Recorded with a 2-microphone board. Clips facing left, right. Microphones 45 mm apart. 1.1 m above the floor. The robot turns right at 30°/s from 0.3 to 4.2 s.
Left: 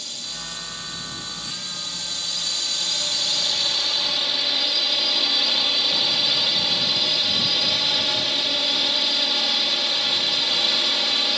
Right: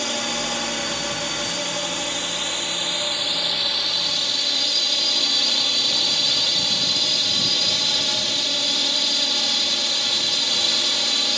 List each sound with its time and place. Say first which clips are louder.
0.0 s a drone: right 11 dB; 110° right; by 11.4 s 10° left